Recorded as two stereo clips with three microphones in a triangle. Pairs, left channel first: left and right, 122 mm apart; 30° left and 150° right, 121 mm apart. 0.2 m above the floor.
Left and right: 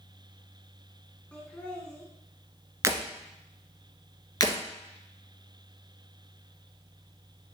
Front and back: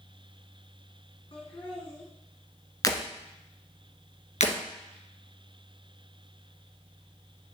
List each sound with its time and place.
1.3 s laughter: 15° left, 2 m
2.8 s breaking glass: 25° right, 1.3 m
4.4 s breaking glass: 35° left, 2.0 m